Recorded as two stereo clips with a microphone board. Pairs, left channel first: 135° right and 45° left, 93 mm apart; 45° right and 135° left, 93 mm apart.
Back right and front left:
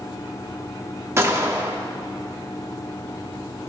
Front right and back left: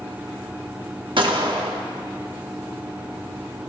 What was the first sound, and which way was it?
A gunshot, 105° left.